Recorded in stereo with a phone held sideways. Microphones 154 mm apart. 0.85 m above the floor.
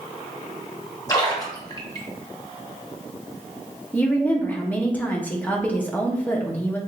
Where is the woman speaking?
10° left (ahead or behind), 0.7 m.